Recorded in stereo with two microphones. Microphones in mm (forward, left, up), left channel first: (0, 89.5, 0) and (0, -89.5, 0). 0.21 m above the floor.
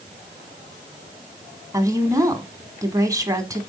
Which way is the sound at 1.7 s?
20° right (ahead or behind).